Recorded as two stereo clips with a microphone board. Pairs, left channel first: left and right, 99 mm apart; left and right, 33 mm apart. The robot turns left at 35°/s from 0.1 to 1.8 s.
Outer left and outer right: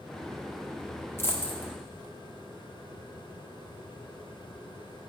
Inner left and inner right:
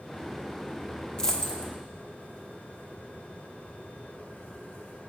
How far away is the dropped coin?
About 0.9 m.